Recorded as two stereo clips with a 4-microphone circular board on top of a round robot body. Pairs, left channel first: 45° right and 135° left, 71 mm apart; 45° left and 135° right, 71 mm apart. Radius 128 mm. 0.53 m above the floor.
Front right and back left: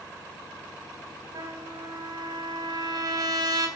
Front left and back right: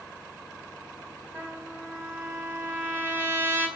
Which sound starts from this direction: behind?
A trumpet, at 1.3 s.